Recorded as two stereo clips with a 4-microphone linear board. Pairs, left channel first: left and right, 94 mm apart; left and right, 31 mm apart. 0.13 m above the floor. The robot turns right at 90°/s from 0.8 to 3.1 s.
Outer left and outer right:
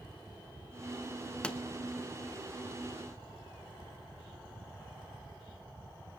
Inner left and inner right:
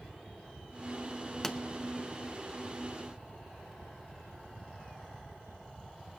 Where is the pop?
10° left (ahead or behind), 0.7 m; by 1.6 s 5° left (ahead or behind), 0.7 m.